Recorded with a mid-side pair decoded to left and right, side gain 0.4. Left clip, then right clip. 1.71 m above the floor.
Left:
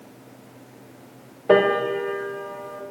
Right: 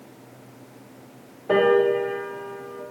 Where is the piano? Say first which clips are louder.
Even; 50° left, 0.6 m.